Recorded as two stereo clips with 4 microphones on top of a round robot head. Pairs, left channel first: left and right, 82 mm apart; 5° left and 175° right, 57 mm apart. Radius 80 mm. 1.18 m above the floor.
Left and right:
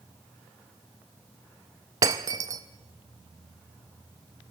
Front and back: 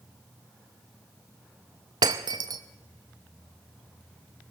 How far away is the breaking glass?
About 0.7 m.